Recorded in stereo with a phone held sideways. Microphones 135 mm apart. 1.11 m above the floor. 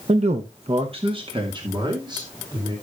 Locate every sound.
0.1 s a man speaking: 55° right (ahead or behind), 0.8 m; by 2.7 s 30° right (ahead or behind), 4 m